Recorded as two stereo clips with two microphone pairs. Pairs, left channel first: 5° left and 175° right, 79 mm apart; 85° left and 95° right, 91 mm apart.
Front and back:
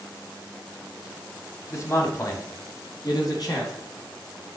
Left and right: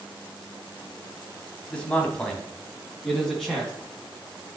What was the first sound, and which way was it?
A man speaking, 20° left.